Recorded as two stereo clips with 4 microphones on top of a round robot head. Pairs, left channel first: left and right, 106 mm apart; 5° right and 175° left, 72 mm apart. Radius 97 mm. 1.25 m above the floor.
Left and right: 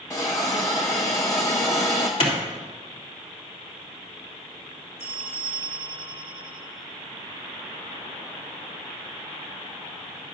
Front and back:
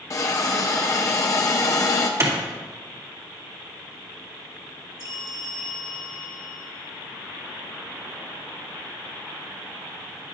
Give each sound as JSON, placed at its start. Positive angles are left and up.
{"t": 0.1, "sound": "a hiss", "azimuth_deg": 25, "distance_m": 0.6}
{"t": 2.2, "sound": "a clap", "azimuth_deg": 125, "distance_m": 2.5}
{"t": 5.0, "sound": "a bell", "azimuth_deg": -5, "distance_m": 4.0}